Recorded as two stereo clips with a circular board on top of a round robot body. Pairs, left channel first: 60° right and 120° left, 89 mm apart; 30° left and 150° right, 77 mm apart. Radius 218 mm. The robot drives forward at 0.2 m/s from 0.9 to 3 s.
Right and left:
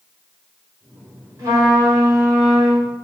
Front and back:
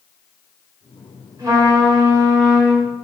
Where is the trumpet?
175° left, 1.3 m.